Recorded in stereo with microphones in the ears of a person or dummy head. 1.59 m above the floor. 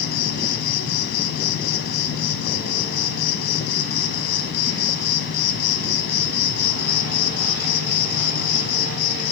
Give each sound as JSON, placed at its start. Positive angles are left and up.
{"t": 0.0, "sound": "an insect", "side_deg": 50, "distance_m": 0.8}